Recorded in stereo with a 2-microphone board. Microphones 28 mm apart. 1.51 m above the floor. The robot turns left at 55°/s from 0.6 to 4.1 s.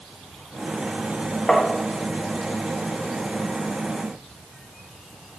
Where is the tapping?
25° left (ahead or behind), 1.6 m; by 1.7 s 15° left (ahead or behind), 1.6 m.